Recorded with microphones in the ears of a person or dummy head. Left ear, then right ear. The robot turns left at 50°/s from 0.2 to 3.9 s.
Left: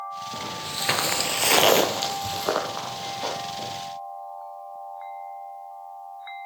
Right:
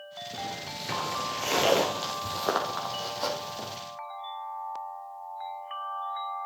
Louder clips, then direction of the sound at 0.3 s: Left 2 dB; 5° left (ahead or behind).